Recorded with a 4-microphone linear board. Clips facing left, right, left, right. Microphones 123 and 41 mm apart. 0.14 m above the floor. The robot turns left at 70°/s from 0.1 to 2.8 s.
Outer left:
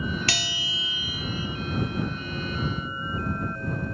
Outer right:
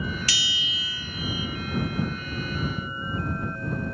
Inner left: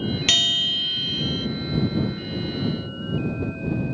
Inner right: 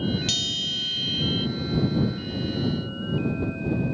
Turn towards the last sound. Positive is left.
turn(degrees=-110)